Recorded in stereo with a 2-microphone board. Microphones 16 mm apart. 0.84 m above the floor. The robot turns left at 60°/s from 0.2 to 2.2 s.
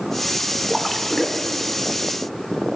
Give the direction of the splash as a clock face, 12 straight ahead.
6 o'clock.